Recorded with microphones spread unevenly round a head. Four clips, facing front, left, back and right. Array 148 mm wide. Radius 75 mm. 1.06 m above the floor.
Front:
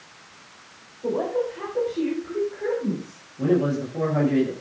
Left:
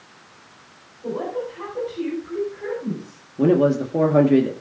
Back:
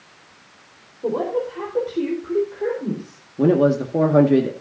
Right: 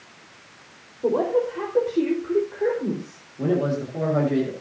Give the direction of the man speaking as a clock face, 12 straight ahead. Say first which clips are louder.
Left 6 dB, back 6 dB; 7 o'clock.